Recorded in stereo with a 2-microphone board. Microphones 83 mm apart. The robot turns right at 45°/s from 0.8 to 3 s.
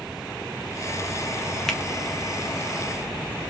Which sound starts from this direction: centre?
A finger snap, at 1.7 s.